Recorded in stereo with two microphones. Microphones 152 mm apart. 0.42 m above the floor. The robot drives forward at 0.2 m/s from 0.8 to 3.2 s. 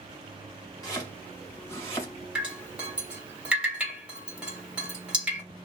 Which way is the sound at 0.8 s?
25° left (ahead or behind).